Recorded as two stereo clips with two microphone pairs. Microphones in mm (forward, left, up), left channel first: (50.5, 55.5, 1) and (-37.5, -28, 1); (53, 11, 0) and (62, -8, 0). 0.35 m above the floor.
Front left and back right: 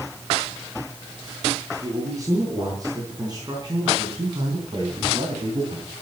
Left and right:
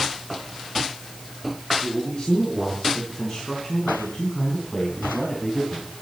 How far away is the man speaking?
About 5.5 m.